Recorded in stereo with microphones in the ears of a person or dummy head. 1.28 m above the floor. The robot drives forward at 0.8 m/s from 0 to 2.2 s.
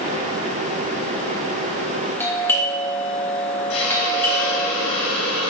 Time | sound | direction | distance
2.2 | a doorbell | 10° left (ahead or behind) | 1.3 m
3.7 | a hiss | 70° left (ahead or behind) | 1.9 m